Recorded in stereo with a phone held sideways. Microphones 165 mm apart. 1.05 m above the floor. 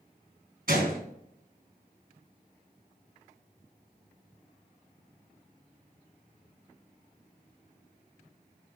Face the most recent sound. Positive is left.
turn(degrees=-70)  # may be behind; listen again after turning